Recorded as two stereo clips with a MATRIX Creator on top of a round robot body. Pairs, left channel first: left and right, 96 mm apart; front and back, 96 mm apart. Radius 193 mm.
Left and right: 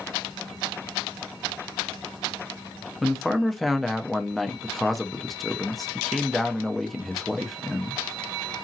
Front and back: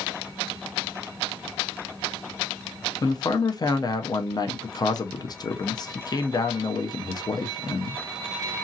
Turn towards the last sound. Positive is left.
turn(degrees=0)